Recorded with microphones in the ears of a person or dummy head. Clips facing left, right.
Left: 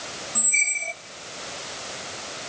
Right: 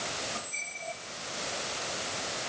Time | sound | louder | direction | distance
0.3 | a squeak | left 3 dB | 35° left (ahead or behind) | 0.6 m